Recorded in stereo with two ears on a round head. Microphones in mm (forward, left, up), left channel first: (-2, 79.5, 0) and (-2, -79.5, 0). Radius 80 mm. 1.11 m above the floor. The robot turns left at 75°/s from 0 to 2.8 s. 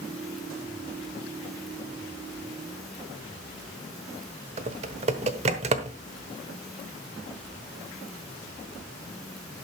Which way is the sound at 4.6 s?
35° right (ahead or behind).